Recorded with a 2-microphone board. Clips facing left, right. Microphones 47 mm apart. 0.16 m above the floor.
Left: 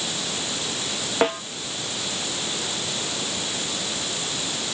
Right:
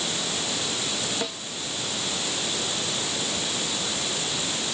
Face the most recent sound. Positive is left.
turn(degrees=45)  # may be behind; listen again after turning